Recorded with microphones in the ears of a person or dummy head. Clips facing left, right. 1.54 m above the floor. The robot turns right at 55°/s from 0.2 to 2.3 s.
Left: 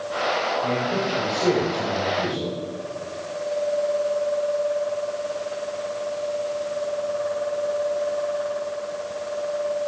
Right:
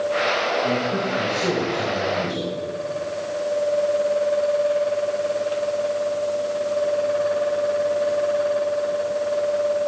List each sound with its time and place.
0.6 s a man speaking: 105° left, 4 m; by 2.5 s 165° right, 4 m